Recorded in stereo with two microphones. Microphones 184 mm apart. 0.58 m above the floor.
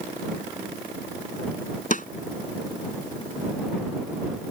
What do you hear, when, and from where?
1.9 s a snare drum: 45° left (ahead or behind)